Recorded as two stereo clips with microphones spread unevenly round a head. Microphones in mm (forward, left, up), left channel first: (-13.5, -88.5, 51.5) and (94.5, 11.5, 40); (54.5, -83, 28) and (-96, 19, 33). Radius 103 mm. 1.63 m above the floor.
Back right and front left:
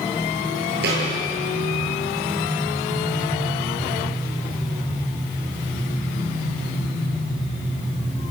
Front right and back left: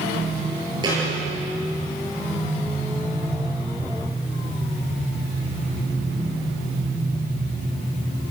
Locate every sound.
0.8 s a thud: 75° left, 9 m